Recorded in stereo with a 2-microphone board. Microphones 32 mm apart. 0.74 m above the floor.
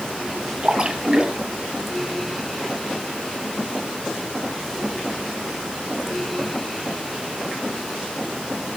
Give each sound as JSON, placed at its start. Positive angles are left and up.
{"t": 0.6, "sound": "a splash", "side_deg": -30, "distance_m": 1.9}